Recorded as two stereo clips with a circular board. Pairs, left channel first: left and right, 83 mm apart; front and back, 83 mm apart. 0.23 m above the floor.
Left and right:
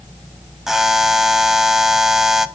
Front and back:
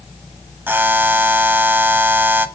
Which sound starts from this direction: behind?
A buzzer, at 0.7 s.